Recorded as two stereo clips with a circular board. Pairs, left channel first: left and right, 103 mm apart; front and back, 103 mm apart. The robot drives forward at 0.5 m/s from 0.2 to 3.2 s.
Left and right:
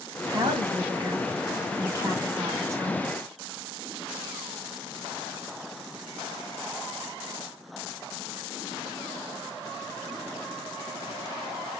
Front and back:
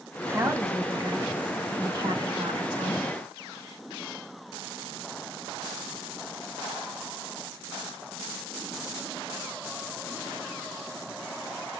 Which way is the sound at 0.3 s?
120° right.